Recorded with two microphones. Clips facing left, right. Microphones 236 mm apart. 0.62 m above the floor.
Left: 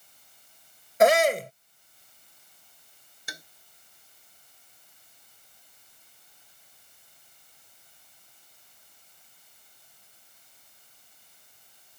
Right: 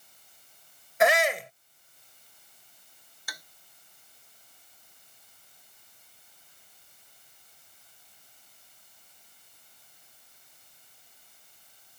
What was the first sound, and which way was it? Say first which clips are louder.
A shout: left 5 dB; 45° left (ahead or behind).